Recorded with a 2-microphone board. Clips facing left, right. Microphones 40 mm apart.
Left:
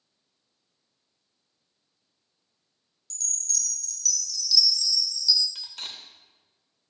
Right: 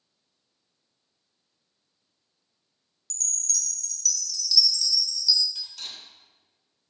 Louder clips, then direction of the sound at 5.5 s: Left 1 dB; 40° left (ahead or behind).